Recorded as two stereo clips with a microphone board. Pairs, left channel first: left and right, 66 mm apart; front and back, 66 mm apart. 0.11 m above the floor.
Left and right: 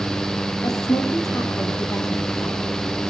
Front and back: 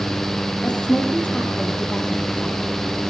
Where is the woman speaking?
70° left, 3.5 m.